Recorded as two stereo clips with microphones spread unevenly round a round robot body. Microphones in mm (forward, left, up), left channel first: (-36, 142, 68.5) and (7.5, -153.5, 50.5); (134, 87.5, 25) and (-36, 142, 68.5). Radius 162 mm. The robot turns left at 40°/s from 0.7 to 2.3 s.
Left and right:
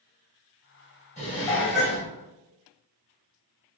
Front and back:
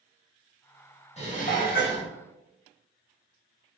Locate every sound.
1.2 s dishes clattering: 30° left, 1.8 m; by 2.1 s 5° right, 1.8 m